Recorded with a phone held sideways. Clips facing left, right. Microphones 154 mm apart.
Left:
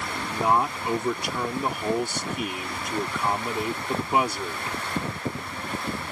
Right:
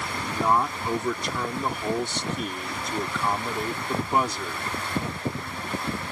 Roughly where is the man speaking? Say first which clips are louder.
Even; centre.